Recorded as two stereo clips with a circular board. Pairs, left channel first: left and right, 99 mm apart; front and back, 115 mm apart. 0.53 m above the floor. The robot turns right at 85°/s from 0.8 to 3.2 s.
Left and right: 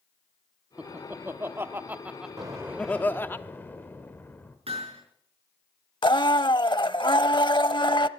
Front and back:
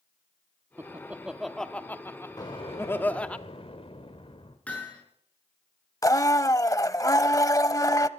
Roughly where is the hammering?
Right.